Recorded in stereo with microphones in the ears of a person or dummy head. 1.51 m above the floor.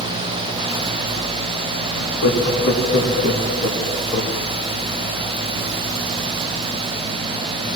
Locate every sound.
1.9 s laughter: 65° left (ahead or behind), 3 m; by 4.4 s 25° left (ahead or behind), 2.5 m